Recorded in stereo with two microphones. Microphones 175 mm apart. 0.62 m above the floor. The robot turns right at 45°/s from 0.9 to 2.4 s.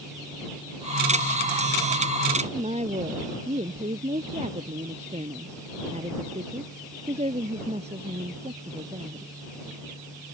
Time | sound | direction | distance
2.4 | a woman speaking | 35° right (ahead or behind) | ?